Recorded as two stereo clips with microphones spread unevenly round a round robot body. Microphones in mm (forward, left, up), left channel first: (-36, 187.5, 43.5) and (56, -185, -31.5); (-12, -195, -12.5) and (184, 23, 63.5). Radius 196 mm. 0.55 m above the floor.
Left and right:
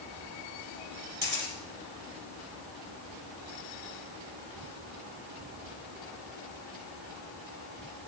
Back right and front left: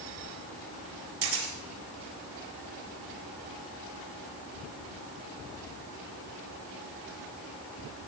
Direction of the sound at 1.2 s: 5° left.